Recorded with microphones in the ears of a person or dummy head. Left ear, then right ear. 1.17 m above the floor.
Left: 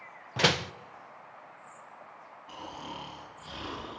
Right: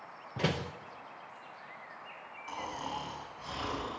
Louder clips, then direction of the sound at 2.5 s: Right 3 dB; 70° right (ahead or behind).